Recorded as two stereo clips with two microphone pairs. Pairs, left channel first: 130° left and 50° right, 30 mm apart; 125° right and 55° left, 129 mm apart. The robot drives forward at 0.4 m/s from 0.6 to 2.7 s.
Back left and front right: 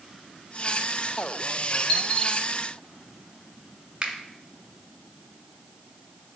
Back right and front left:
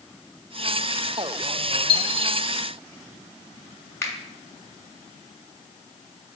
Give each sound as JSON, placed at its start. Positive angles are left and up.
{"t": 1.9, "sound": "a dropped coin", "azimuth_deg": -175, "distance_m": 0.6}
{"t": 4.0, "sound": "a finger snap", "azimuth_deg": -75, "distance_m": 0.8}